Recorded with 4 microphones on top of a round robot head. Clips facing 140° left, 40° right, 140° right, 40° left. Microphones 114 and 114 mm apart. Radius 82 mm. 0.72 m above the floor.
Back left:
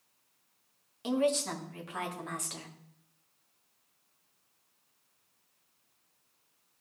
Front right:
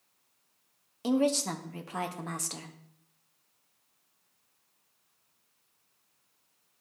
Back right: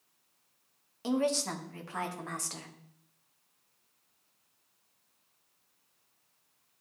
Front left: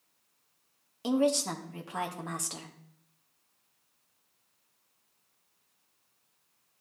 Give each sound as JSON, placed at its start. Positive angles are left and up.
{"t": 1.0, "sound": "a woman speaking", "azimuth_deg": -20, "distance_m": 1.0}